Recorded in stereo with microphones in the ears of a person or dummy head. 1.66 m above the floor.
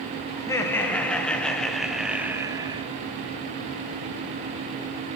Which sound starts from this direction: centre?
Laughter, at 0.4 s.